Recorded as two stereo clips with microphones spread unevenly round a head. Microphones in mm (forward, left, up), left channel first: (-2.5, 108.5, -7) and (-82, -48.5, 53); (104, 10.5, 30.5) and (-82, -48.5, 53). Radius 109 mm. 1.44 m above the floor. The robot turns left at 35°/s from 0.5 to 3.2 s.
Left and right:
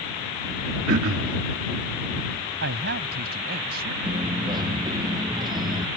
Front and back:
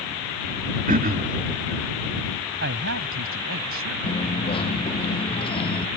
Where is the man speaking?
125° right; by 4.0 s 145° right.